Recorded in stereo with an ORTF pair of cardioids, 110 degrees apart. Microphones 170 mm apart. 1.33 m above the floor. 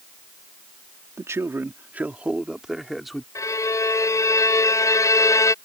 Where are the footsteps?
No footsteps in this recording.